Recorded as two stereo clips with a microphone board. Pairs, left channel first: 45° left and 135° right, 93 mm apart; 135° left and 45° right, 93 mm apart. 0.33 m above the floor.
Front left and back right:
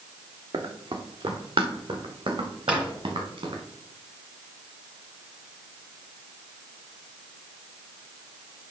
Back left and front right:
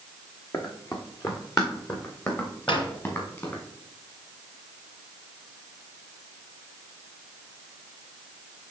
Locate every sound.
0.5 s running footsteps: 175° right, 1.7 m; by 3.6 s 160° right, 3 m
2.7 s a drawer: 145° left, 2 m